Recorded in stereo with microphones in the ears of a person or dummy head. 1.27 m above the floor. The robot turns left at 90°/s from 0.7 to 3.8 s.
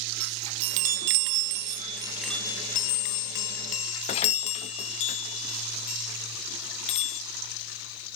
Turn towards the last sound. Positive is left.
turn(degrees=35)  # may be behind; listen again after turning